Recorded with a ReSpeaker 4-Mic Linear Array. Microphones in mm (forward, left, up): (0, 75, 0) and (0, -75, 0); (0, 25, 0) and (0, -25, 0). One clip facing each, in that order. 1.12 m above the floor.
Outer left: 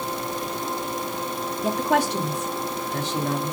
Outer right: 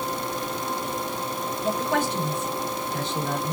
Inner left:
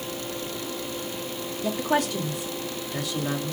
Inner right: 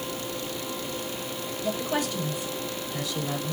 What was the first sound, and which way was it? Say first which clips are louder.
A woman speaking: outer left 3 dB, inner left 4 dB; 75° left (ahead or behind).